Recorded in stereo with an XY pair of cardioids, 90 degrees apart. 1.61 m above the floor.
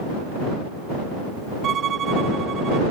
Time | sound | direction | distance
1.6 | a violin | 65° right | ?